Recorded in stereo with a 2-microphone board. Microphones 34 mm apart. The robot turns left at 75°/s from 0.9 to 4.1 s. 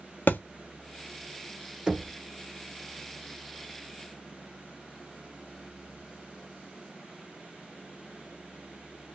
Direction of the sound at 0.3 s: 65° left (ahead or behind).